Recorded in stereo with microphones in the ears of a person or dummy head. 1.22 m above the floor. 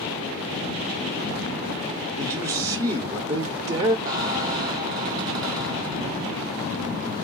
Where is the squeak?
20° right (ahead or behind), 0.9 m.